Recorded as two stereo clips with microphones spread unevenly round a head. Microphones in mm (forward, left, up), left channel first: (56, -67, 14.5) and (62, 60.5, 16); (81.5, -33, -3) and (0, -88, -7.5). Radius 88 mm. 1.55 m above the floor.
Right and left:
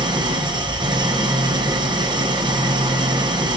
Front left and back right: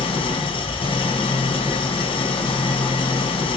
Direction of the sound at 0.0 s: 40° left.